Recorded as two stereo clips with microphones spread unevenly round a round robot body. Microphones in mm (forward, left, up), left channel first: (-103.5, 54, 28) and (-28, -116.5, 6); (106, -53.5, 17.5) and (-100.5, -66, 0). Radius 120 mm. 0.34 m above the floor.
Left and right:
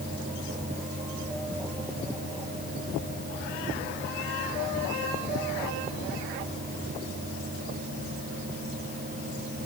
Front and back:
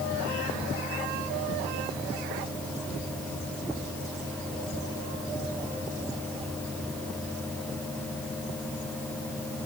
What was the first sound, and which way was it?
Only background noise.